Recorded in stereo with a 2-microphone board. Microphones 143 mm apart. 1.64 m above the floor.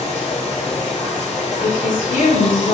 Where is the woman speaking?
80° left, 2.5 m.